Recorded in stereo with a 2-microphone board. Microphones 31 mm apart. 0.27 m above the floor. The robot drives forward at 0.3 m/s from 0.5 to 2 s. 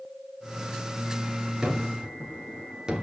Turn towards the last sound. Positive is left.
turn(degrees=-25)  # may be behind; listen again after turning